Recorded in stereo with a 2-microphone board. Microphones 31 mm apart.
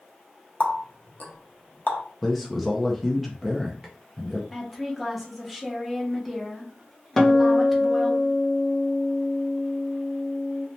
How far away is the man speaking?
About 0.5 m.